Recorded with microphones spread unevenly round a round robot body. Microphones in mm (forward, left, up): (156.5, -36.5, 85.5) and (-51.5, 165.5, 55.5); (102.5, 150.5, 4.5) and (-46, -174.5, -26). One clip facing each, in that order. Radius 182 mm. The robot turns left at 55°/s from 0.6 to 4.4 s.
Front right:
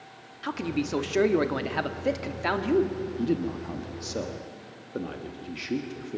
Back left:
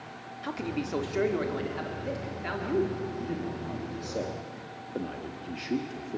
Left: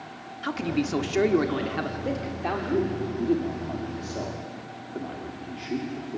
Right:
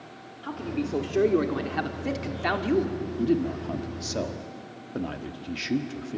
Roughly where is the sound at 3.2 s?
Ahead right.